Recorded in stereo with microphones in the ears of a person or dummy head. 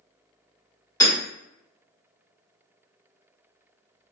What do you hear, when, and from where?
1.0 s hammering: 25° left (ahead or behind), 1.4 m